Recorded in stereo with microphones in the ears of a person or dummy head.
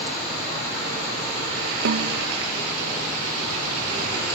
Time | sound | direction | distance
1.9 | a snare drum | 55° right (ahead or behind) | ?